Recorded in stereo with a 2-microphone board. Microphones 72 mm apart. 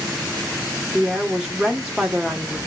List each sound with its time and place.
0.9 s a woman speaking: 10° right (ahead or behind), 1.2 m